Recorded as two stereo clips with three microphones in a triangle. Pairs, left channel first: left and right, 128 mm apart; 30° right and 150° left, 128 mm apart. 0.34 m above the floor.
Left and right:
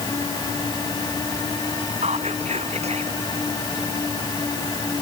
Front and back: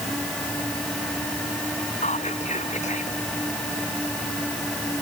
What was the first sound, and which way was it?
Whispering, 55° right.